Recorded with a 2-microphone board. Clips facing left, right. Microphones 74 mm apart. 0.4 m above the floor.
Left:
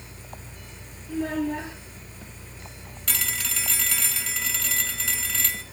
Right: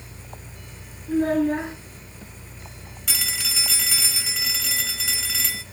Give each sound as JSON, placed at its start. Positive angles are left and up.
{"t": 1.1, "sound": "a child speaking", "side_deg": -80, "distance_m": 4.0}
{"t": 3.1, "sound": "a phone ringing", "side_deg": -5, "distance_m": 1.3}